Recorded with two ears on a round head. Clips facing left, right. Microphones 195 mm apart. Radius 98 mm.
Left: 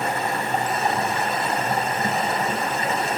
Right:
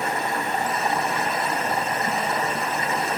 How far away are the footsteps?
No footsteps in this recording.